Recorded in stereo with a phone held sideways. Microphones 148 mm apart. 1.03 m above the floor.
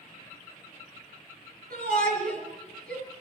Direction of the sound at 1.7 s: 80° right.